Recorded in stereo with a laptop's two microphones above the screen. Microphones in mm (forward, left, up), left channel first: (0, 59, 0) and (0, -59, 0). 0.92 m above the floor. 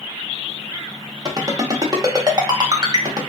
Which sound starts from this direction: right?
A ringtone, at 1.2 s.